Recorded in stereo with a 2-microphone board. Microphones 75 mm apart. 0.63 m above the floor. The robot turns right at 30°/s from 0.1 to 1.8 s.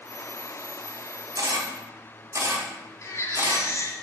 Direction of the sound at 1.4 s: 55° right (ahead or behind).